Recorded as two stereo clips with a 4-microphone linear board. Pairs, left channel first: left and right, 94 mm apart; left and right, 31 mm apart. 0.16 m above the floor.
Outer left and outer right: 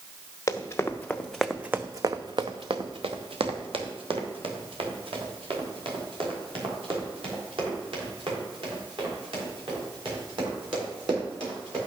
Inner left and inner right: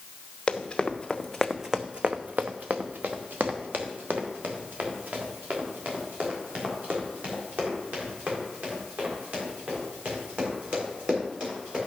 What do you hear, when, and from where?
0.5 s running footsteps: 35° left (ahead or behind), 1.3 m; by 11.8 s 70° right (ahead or behind), 8.5 m